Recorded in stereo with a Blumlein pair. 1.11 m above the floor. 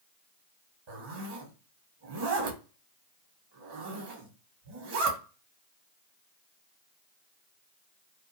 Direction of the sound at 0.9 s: 50° right.